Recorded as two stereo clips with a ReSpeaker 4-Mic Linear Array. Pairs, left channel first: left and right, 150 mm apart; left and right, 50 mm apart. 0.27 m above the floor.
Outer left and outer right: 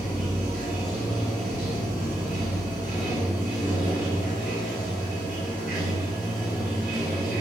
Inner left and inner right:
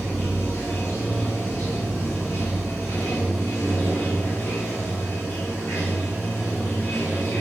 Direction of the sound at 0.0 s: 65° left (ahead or behind).